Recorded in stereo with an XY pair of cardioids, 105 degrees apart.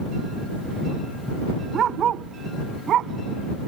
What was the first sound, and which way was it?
A dog barking, 60° right.